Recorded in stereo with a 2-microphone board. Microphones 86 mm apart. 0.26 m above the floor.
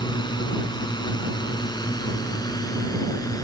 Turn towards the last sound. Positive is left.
turn(degrees=45)  # may be behind; listen again after turning